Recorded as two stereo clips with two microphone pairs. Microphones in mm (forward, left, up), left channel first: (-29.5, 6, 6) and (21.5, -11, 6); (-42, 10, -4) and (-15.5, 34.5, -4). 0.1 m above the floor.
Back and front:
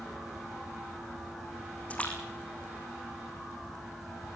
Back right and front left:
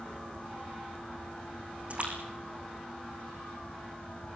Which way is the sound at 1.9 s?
95° left.